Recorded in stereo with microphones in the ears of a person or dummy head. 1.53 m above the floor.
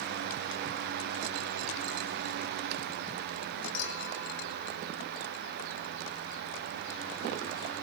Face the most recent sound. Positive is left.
turn(degrees=65)  # may be behind; listen again after turning